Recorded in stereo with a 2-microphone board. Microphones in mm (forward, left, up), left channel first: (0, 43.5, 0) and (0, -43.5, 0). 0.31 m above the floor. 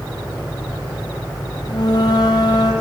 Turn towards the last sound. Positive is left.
turn(degrees=55)  # may be behind; listen again after turning